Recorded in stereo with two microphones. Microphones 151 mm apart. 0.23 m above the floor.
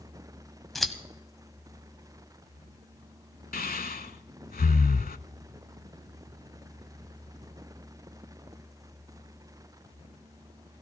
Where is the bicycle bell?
I don't hear a bicycle bell.